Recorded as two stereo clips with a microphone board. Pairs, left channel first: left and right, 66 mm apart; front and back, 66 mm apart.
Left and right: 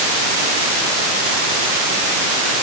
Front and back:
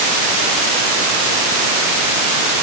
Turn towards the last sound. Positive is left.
No sound to turn to.